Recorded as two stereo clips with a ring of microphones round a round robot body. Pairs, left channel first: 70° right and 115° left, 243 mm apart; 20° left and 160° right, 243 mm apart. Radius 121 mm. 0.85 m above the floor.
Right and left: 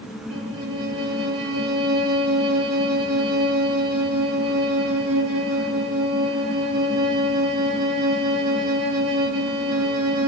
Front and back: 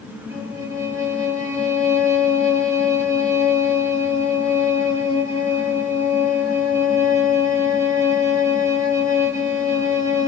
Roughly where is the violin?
Behind left.